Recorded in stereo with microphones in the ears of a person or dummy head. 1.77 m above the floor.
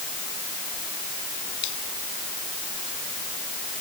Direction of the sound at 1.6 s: 65° left (ahead or behind).